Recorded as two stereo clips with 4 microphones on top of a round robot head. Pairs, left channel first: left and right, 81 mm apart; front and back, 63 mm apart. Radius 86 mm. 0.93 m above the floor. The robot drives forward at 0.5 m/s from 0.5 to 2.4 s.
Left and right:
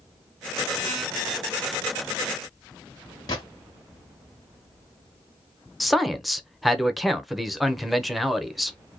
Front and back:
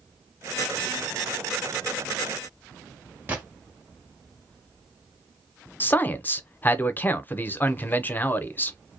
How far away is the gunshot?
About 0.9 m.